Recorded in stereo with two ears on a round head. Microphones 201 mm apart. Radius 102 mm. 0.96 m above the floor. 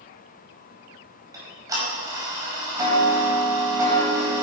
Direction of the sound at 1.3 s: 15° right (ahead or behind).